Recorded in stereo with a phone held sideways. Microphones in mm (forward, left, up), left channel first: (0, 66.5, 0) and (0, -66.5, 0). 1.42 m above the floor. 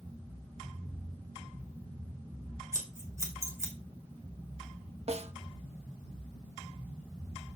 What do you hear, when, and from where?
2.7 s scissors: 20° right (ahead or behind), 2.5 m
5.1 s a snare drum: 55° right (ahead or behind), 0.6 m